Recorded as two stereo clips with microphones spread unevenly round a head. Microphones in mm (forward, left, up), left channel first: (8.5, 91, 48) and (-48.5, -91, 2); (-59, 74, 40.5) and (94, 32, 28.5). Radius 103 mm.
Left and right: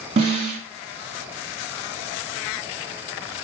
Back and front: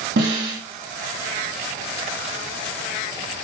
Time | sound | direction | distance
0.2 | a snare drum | 45° right | 1.5 m